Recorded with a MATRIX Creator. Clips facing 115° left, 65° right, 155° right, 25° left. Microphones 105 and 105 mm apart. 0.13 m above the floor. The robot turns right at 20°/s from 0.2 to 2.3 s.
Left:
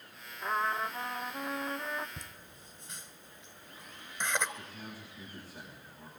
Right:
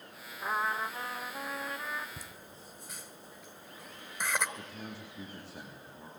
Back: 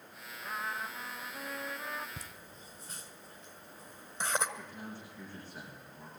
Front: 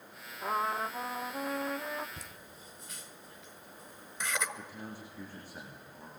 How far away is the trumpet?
About 1.1 m.